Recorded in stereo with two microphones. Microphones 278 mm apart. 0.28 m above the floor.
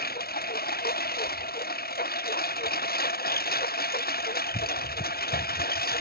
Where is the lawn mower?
35° left (ahead or behind).